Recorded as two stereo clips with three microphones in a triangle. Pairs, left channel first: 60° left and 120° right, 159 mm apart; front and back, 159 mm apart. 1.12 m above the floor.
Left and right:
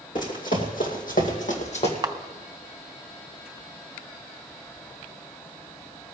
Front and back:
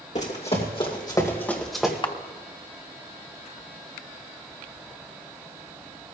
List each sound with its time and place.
0.1 s running footsteps: 35° left, 2.5 m; by 1.9 s 95° left, 2 m
2.0 s a camera shutter: 55° right, 0.7 m